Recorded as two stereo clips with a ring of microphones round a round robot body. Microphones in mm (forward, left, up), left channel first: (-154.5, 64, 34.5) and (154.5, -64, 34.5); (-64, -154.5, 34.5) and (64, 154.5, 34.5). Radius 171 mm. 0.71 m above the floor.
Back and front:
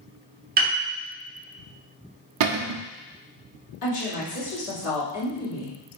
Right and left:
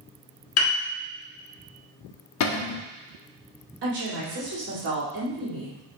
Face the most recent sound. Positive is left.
turn(degrees=125)